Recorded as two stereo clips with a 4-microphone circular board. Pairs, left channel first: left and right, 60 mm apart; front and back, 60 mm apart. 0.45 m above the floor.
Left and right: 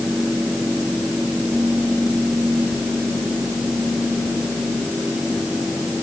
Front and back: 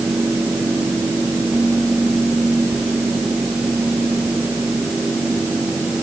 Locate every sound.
Only background noise.